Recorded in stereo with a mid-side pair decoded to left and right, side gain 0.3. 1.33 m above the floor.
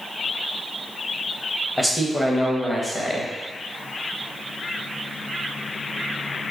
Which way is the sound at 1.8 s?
20° left.